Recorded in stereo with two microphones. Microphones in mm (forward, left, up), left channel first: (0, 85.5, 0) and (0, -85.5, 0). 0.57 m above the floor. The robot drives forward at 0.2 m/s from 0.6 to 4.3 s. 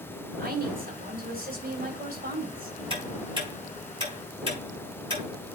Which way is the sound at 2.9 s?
30° right (ahead or behind).